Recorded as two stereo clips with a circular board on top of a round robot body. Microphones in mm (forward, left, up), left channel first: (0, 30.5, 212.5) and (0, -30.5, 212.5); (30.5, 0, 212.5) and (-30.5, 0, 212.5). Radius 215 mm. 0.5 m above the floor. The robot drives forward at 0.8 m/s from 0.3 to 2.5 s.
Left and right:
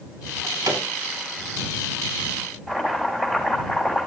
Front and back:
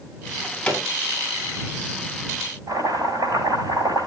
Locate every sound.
0.3 s a drawer: 70° right, 5 m; by 0.8 s 75° right, 4.5 m
2.7 s chopping: 170° right, 5.5 m